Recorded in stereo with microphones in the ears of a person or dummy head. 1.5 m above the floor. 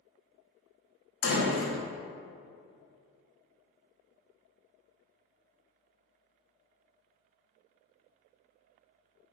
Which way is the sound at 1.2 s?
85° left.